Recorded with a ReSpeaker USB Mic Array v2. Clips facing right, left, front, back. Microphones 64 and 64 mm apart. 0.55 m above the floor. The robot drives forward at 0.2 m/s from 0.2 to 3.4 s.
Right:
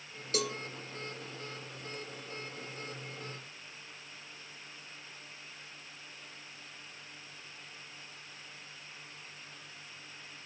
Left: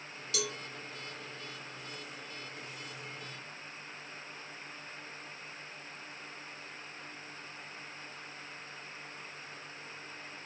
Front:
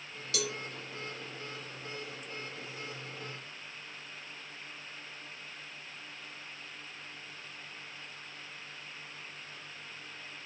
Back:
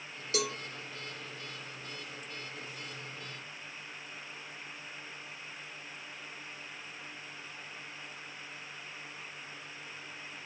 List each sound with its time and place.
0.3 s a cowbell: 130° right, 1.2 m